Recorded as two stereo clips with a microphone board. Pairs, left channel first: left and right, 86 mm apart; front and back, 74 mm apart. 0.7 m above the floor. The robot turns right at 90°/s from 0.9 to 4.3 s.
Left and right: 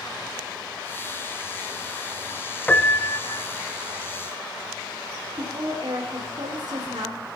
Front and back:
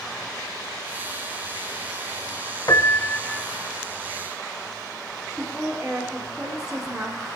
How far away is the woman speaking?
About 2 m.